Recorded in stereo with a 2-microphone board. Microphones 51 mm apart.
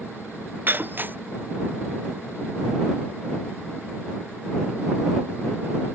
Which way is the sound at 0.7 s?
40° right (ahead or behind).